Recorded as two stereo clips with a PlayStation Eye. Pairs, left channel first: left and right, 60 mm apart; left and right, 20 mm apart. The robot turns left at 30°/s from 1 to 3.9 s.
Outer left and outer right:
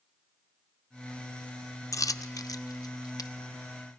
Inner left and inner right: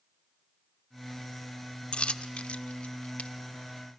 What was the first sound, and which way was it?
A dropped coin, 60° left (ahead or behind).